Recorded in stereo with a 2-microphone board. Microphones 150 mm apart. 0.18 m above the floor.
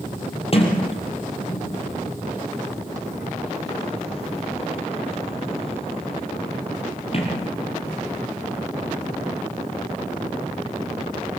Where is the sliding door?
40° left (ahead or behind), 4.5 m.